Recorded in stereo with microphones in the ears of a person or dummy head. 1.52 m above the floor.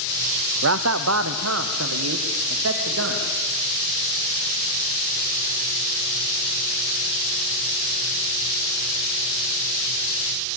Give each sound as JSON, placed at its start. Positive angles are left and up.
{"t": 0.6, "sound": "a man speaking", "side_deg": -70, "distance_m": 0.7}